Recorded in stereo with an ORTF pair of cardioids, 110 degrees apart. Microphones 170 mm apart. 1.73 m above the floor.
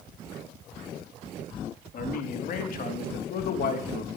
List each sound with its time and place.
1.9 s a man speaking: 55° left, 4 m; by 4.2 s 65° left, 3 m